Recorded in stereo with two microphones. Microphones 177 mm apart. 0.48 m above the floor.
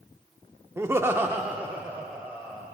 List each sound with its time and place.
0.8 s laughter: 15° right (ahead or behind), 0.7 m; by 2.6 s 5° right (ahead or behind), 1.9 m